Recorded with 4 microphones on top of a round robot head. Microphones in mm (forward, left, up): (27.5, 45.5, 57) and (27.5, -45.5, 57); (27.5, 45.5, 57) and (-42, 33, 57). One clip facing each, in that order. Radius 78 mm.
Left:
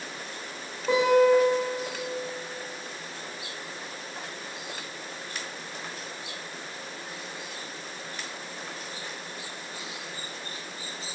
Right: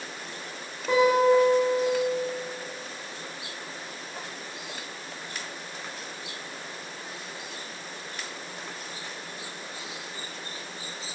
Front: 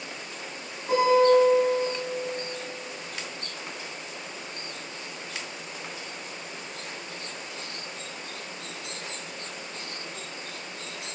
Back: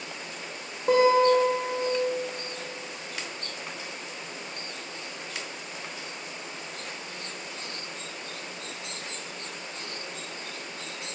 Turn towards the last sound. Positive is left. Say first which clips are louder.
# even, even
turn(degrees=175)